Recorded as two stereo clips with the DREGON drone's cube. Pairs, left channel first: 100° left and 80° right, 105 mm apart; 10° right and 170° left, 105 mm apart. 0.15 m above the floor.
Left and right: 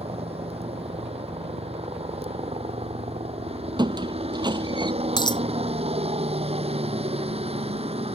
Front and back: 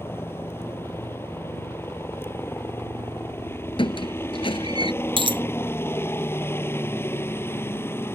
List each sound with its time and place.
0.0 s a helicopter: 75° right
3.8 s a squeak: 40° right
5.2 s a dropped coin: 140° left